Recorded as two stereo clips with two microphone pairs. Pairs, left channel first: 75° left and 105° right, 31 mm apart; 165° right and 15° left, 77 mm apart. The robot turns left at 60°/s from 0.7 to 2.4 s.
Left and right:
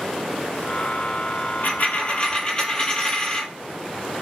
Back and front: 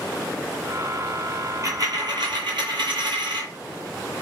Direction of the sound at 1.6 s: 55° left.